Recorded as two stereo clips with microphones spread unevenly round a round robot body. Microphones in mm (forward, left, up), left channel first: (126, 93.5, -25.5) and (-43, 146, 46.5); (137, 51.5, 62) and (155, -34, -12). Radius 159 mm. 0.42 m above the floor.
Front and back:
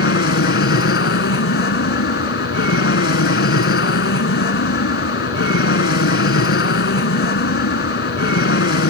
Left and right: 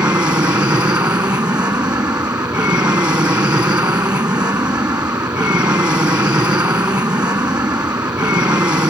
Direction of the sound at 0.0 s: 20° right.